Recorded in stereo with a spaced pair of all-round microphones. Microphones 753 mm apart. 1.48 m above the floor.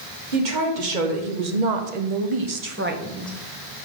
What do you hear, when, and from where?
0.3 s a woman speaking: 75° right (ahead or behind), 1.7 m; by 3.3 s 5° left (ahead or behind), 0.9 m